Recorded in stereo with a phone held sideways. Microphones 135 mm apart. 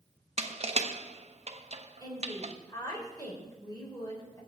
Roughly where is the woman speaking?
Left.